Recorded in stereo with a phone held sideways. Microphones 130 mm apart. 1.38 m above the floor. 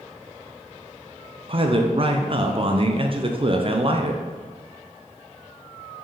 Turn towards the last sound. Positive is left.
turn(degrees=-45)  # may be behind; listen again after turning